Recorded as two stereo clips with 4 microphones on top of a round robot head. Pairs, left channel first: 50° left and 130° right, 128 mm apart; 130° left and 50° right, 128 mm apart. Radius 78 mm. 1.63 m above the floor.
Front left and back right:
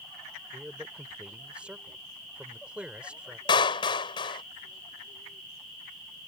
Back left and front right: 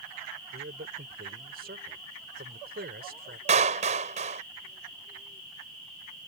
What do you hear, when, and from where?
0.5 s a man speaking: 50° right
3.5 s a clap: 10° right